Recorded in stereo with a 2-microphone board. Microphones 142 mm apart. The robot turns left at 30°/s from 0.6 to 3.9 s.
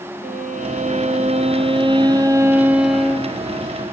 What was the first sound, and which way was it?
A violin, 105° right.